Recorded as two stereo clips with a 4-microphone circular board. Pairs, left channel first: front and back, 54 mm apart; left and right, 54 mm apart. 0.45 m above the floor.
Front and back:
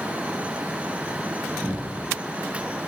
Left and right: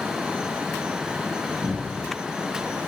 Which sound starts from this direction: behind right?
A cupboard door, at 1.6 s.